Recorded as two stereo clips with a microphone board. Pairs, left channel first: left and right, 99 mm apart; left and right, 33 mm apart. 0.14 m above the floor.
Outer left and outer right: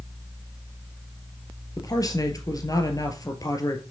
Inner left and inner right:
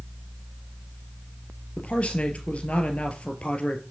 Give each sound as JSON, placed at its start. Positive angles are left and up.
{"t": 1.8, "sound": "a man speaking", "side_deg": 40, "distance_m": 2.5}